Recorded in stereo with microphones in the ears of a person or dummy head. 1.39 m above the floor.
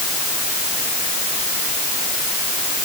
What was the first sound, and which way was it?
Only background noise.